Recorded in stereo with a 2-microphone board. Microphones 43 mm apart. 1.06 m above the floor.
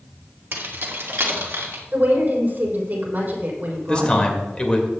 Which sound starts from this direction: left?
A man speaking, at 3.9 s.